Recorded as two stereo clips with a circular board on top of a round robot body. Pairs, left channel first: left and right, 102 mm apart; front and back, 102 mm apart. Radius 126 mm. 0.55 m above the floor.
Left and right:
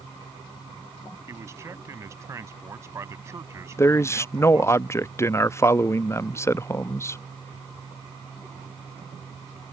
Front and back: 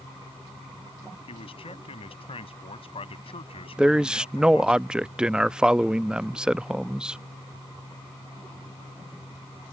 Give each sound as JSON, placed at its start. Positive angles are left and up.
{"t": 1.3, "sound": "a man speaking", "azimuth_deg": -25}
{"t": 3.8, "sound": "a man speaking", "azimuth_deg": 110}